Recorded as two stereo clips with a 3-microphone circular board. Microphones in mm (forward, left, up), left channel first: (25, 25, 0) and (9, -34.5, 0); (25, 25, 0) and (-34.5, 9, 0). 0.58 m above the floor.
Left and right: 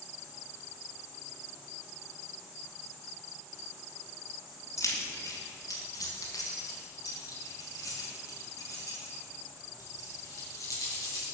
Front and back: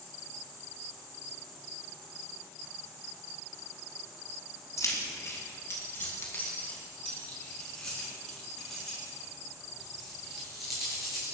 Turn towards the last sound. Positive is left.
turn(degrees=110)